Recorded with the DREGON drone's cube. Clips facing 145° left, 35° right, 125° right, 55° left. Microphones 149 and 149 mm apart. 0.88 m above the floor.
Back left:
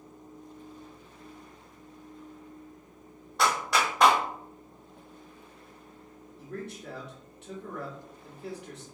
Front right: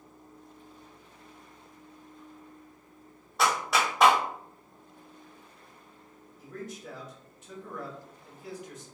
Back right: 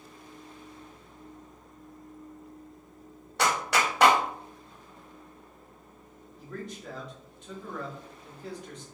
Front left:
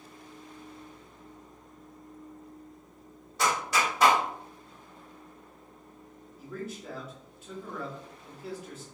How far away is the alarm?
No alarm in this recording.